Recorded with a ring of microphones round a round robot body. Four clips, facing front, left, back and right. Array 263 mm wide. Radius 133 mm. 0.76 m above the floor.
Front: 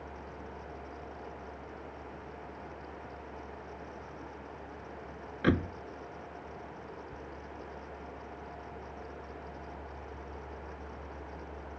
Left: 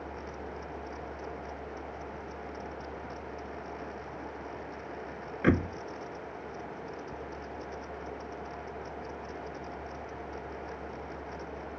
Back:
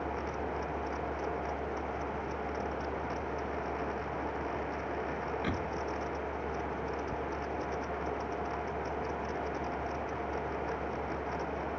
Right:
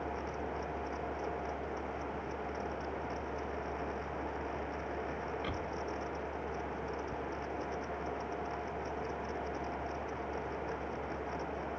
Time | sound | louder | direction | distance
5.4 | a door slam | left 12 dB, front 5 dB | 60° left | ?